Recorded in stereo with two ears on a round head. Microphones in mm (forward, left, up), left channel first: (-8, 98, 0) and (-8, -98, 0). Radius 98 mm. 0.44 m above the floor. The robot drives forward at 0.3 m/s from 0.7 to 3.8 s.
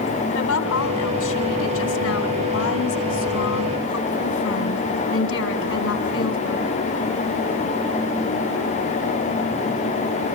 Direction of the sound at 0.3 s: 70° left (ahead or behind).